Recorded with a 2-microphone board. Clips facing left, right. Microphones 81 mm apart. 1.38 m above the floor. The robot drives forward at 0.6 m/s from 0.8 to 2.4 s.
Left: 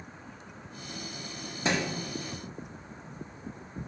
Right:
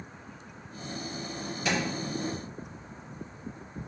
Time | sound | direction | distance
1.6 | a thud | 30° left (ahead or behind) | 0.7 m